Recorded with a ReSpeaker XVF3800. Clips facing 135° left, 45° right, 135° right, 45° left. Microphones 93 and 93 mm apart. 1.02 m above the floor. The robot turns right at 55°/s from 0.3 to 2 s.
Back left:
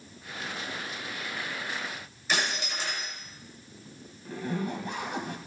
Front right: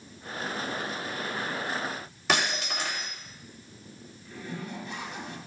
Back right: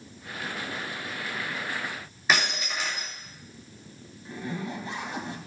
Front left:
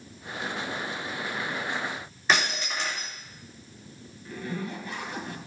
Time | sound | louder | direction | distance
2.3 | breaking glass | front right 3 dB, even | 50° right | 4 m
4.2 | a zipper | back left 6 dB, even | 165° left | 2 m